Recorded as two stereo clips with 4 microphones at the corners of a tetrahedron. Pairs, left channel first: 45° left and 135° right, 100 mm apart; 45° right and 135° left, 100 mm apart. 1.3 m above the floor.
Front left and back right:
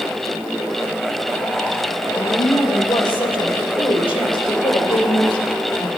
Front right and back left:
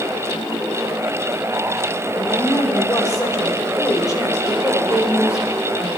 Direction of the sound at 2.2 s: 10° left.